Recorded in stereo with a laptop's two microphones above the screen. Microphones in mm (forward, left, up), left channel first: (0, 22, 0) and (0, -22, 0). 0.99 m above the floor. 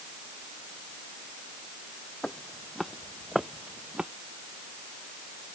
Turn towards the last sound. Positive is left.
turn(degrees=-20)  # may be behind; listen again after turning